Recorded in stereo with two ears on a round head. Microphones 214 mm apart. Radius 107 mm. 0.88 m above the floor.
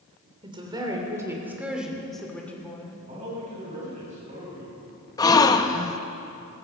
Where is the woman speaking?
20° right (ahead or behind), 3 m; by 3.0 s 15° left (ahead or behind), 2.5 m.